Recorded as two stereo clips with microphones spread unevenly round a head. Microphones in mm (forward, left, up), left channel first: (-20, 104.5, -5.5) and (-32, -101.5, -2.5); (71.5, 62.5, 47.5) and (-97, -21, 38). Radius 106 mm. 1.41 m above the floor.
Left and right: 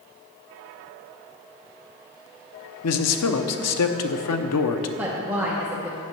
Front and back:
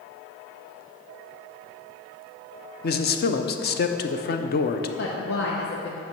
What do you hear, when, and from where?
2.8 s a man speaking: 65° left, 0.8 m
5.0 s a woman speaking: 10° right, 0.8 m